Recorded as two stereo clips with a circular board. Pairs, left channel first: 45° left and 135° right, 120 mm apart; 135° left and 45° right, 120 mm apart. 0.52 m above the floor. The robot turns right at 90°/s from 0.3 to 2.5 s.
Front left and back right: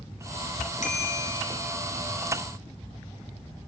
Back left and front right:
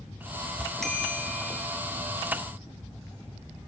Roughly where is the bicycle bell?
Ahead left.